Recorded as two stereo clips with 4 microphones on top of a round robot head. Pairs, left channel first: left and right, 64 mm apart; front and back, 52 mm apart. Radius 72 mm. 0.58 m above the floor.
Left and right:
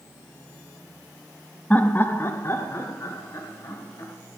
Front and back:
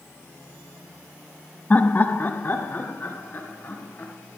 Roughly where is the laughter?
Ahead left.